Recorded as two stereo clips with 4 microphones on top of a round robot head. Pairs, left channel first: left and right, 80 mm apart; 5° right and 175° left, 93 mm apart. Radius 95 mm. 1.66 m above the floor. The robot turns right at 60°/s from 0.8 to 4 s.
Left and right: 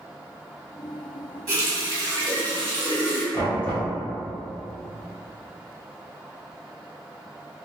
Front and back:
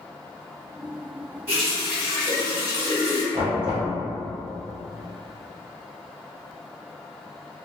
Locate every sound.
1.5 s a running tap: 125° right, 1.5 m; by 3.2 s 15° right, 1.5 m
3.3 s knocking: 140° left, 0.9 m; by 3.9 s 175° left, 0.9 m